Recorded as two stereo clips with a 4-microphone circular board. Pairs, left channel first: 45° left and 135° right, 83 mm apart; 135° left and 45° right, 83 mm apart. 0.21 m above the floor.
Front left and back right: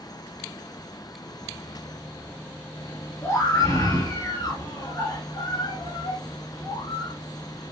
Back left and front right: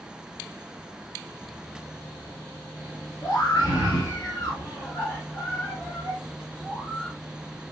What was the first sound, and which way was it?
A scream, 100° left.